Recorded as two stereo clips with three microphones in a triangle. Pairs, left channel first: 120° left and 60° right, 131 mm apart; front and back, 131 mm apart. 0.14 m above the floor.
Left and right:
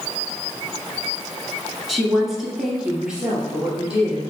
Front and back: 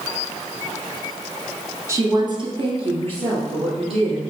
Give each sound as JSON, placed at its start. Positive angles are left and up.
{"t": 1.9, "sound": "a woman speaking", "azimuth_deg": -150, "distance_m": 1.2}